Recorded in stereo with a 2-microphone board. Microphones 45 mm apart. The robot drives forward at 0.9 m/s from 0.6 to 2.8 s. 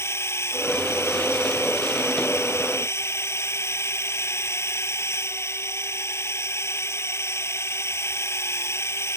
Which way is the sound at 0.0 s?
75° left (ahead or behind).